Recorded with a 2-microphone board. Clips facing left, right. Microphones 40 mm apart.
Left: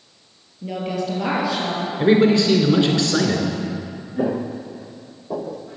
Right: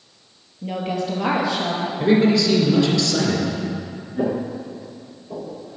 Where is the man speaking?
40° left (ahead or behind), 1.9 m.